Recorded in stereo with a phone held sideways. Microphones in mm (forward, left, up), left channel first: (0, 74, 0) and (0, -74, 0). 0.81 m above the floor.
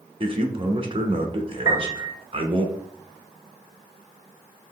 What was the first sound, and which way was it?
A man speaking, 35° right (ahead or behind).